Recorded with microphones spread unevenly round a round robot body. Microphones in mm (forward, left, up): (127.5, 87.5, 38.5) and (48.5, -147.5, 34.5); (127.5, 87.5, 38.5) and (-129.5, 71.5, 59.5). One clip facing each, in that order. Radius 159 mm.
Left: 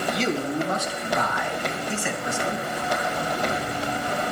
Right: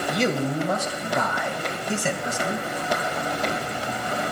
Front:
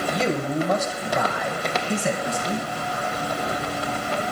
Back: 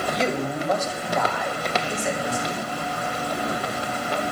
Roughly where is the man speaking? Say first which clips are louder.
Right 2 dB, front 1 dB; right.